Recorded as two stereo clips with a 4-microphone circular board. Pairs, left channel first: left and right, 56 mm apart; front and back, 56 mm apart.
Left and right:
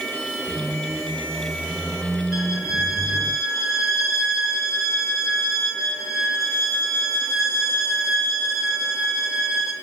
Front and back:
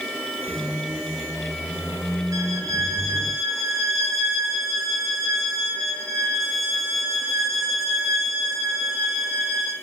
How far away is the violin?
About 2 m.